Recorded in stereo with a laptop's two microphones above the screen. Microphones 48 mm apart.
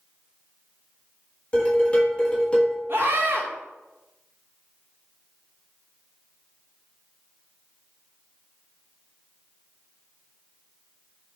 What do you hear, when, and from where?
1.5 s dishes clattering: 25° left (ahead or behind), 1.0 m
2.9 s a scream: 50° right (ahead or behind), 1.3 m